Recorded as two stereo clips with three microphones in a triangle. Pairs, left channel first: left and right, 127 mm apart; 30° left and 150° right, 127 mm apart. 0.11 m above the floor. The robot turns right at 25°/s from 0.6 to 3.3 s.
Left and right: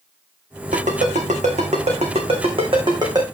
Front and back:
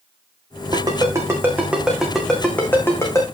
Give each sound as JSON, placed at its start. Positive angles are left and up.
{"t": 0.7, "sound": "a ringtone", "azimuth_deg": -95, "distance_m": 3.5}